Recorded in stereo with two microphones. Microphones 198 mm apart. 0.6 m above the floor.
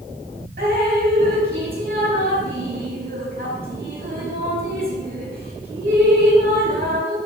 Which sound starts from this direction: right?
Dripping, at 0.6 s.